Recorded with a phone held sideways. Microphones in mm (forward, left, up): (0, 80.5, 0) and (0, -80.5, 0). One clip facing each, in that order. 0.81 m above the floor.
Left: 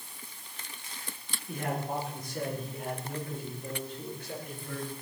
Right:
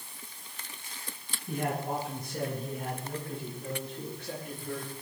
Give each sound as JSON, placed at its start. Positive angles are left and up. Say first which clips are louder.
{"t": 1.5, "sound": "a man speaking", "louder": "right 2 dB", "side_deg": -65, "distance_m": 9.5}